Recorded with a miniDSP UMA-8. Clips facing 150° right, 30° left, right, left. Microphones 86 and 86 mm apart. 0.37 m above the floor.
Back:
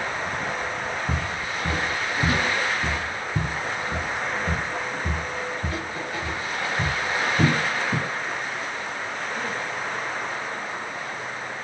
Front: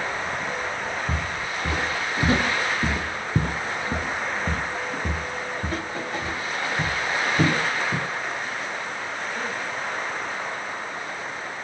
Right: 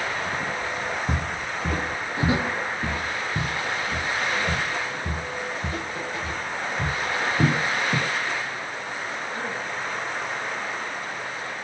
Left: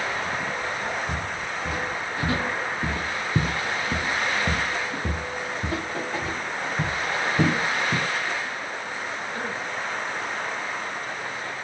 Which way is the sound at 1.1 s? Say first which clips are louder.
Even, right 1 dB; 55° right.